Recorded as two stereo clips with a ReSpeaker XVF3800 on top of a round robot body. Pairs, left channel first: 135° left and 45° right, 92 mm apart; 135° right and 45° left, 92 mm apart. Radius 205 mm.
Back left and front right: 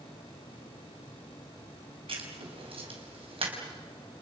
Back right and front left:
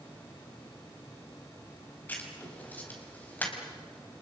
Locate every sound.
2.1 s writing: 65° right, 5 m